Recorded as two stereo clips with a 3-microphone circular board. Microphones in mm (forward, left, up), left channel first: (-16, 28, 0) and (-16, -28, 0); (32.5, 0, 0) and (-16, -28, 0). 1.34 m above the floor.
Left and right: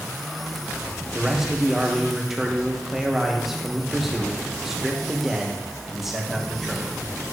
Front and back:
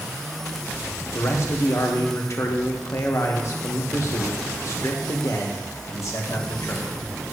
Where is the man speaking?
5° right, 1.5 m.